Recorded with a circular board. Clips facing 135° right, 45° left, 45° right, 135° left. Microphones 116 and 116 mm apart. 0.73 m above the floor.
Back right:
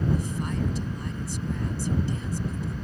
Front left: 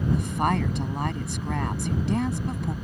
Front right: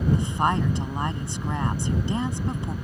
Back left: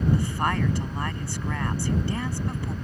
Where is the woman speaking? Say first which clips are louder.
Front left 5 dB, front right 2 dB; 25° left.